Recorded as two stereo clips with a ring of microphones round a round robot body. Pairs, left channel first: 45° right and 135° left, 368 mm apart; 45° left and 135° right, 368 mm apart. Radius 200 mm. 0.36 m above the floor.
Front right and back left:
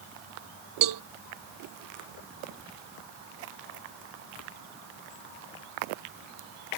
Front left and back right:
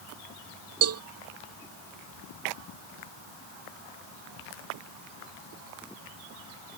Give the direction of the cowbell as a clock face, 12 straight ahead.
6 o'clock.